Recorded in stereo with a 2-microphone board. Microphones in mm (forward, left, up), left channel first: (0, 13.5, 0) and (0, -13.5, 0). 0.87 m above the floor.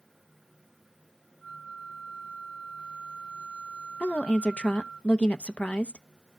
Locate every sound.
1.4 s a flute: 75° left (ahead or behind), 2 m
4.0 s a woman speaking: 50° left (ahead or behind), 0.8 m